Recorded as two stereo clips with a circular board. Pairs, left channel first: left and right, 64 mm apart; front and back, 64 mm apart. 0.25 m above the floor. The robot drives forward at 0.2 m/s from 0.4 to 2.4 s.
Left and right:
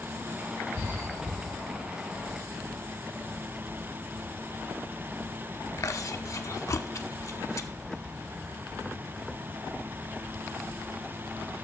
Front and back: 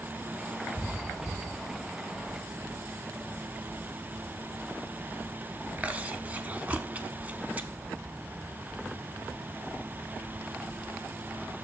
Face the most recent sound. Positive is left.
turn(degrees=120)